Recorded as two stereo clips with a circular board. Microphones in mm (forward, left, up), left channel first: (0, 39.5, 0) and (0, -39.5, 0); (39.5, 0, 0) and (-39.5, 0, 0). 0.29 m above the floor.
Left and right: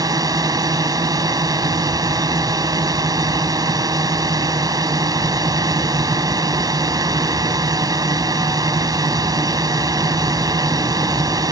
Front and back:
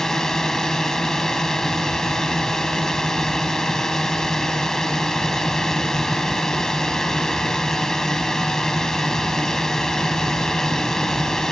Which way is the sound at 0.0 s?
85° right.